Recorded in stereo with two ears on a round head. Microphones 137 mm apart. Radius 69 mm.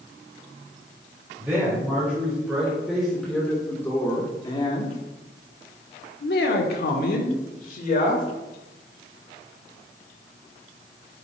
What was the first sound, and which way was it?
A man speaking, 10° right (ahead or behind).